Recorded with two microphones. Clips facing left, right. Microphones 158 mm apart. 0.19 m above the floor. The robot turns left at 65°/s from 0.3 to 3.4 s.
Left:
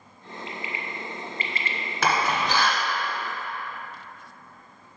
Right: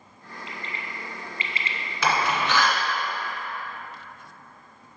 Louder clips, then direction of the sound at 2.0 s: Even; 55° left (ahead or behind).